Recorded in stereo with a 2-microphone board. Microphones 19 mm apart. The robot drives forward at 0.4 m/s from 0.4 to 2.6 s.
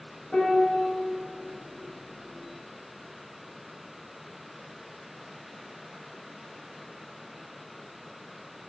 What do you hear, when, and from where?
0.3 s a piano: 50° left (ahead or behind), 1.1 m; by 0.8 s 45° left (ahead or behind), 1.2 m